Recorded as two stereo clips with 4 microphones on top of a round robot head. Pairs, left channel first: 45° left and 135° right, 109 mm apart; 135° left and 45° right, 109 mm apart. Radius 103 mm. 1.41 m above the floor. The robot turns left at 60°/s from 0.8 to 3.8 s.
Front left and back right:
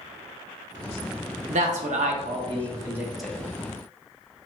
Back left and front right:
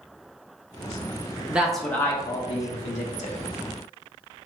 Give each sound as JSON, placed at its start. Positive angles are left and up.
{"t": 1.5, "sound": "a man speaking", "azimuth_deg": -120, "distance_m": 0.7}